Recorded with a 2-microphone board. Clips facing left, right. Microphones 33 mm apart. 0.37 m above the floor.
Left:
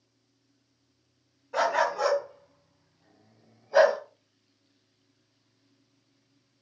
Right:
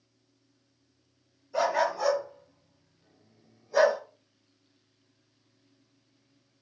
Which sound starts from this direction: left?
A dog barking, at 1.5 s.